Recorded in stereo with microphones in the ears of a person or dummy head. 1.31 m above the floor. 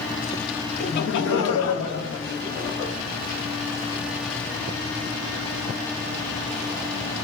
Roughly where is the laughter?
Left.